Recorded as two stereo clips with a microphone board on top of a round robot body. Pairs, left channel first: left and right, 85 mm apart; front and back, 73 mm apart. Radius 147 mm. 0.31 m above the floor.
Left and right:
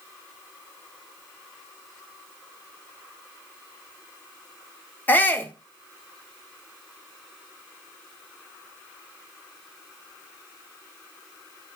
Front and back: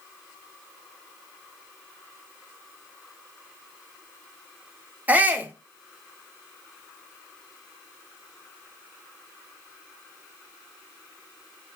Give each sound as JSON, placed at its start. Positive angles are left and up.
{"t": 5.1, "sound": "a shout", "azimuth_deg": 135, "distance_m": 1.0}